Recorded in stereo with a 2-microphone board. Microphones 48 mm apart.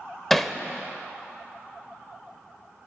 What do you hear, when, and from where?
0.3 s hammering: 5° left (ahead or behind), 0.7 m